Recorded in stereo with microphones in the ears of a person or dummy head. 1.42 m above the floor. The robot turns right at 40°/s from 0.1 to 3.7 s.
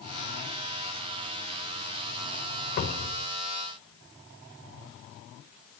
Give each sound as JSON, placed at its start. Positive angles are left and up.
{"t": 2.8, "sound": "a cupboard door", "side_deg": 50, "distance_m": 3.0}